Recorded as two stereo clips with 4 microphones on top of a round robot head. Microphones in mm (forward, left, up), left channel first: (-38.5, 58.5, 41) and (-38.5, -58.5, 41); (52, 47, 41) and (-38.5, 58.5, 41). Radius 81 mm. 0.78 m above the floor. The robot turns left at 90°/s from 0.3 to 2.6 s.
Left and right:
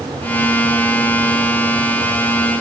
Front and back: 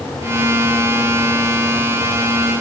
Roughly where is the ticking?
No ticking in this recording.